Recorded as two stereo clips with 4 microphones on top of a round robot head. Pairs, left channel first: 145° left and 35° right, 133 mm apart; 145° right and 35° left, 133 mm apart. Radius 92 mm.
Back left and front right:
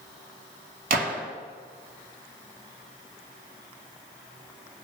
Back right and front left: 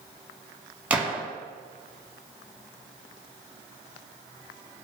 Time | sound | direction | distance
0.9 | a gunshot | 45° right | 1.0 m